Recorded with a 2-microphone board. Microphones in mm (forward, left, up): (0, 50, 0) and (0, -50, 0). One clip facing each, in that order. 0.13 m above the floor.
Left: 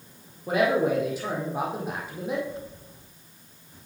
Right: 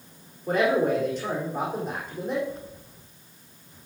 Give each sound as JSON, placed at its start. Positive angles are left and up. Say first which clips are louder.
{"t": 0.5, "sound": "a man speaking", "louder": "even", "side_deg": 5, "distance_m": 4.5}